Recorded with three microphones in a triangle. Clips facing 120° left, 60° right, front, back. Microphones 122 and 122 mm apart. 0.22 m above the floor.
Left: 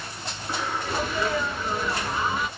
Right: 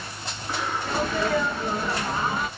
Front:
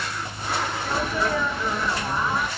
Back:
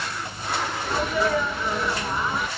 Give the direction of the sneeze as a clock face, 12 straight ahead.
3 o'clock.